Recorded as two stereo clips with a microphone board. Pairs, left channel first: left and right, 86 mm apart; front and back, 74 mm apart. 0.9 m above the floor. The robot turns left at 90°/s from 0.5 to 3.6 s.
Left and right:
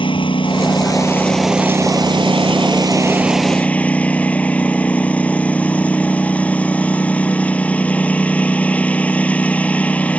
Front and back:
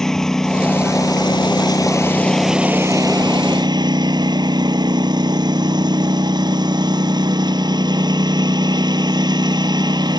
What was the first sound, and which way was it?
A lawn mower, 85° left.